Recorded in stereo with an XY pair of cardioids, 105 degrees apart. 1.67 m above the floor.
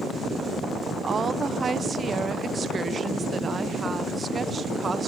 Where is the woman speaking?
35° right, 1.0 m.